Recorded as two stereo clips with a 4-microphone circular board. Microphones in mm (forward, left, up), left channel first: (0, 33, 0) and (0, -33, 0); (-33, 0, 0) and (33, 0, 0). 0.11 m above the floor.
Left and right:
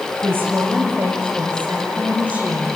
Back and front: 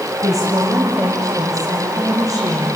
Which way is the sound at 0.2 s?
35° right.